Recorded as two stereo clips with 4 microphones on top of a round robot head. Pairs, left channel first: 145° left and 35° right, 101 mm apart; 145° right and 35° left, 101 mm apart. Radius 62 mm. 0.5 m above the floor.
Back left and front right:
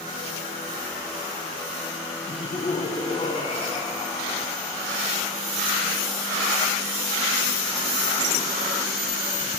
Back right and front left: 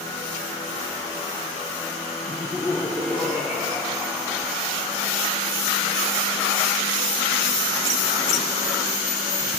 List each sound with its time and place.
2.3 s laughter: 125° left, 1.1 m